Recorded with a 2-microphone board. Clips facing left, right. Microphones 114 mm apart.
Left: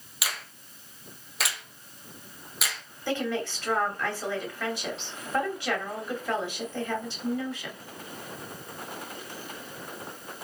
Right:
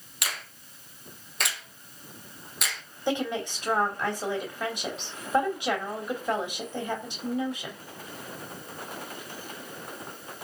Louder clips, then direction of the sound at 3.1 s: Right 1 dB; 20° right (ahead or behind).